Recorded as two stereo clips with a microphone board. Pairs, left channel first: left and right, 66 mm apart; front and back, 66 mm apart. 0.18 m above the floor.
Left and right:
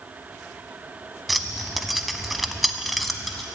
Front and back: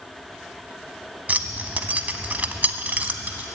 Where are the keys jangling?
175° right, 0.7 m.